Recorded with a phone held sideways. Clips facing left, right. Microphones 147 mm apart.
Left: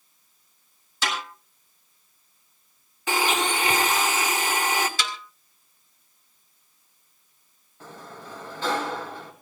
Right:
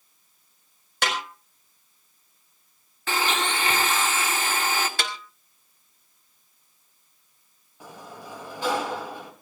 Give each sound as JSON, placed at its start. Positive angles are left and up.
{"t": 1.0, "sound": "a snare drum", "side_deg": -65, "distance_m": 5.0}
{"t": 3.1, "sound": "a blender", "side_deg": 15, "distance_m": 2.0}
{"t": 5.0, "sound": "a snare drum", "side_deg": -55, "distance_m": 2.0}
{"t": 7.8, "sound": "a sliding door", "side_deg": -10, "distance_m": 2.5}